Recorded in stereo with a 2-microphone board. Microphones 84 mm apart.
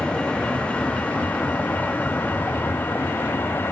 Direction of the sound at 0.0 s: 10° left (ahead or behind).